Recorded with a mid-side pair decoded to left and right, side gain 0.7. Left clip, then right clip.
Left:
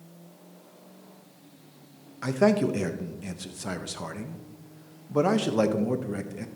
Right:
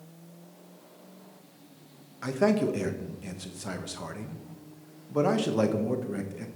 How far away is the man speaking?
About 1.1 m.